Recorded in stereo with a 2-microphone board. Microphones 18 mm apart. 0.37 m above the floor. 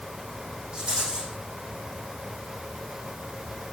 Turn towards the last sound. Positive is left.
turn(degrees=-90)